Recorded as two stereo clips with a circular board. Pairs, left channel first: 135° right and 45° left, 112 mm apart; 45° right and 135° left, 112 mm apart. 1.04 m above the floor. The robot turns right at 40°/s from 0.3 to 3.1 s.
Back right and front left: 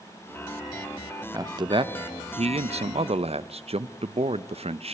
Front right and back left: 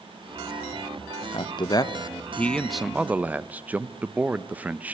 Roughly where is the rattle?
No rattle in this recording.